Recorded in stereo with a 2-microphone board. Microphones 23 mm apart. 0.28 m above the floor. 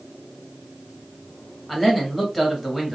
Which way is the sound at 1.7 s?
5° right (ahead or behind).